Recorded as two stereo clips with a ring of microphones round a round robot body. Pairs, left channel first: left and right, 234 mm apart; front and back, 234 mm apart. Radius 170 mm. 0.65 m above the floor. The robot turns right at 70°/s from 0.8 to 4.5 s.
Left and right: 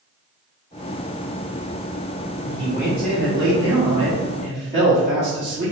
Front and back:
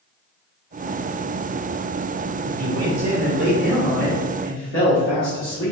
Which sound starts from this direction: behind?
A man speaking, at 2.4 s.